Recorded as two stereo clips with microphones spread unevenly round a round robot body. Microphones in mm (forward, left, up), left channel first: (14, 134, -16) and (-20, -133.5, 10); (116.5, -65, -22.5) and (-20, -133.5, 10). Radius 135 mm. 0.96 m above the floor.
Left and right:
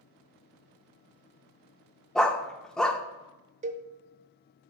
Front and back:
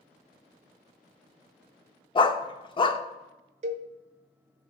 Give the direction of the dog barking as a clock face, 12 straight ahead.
12 o'clock.